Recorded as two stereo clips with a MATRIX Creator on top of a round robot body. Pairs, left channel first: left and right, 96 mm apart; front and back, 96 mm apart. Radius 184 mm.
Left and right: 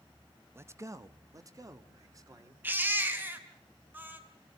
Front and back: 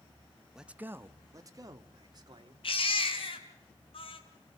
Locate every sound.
0.6 s a man speaking: 100° right, 0.8 m; by 2.5 s 140° right, 1.9 m
2.6 s a baby crying: 20° right, 2 m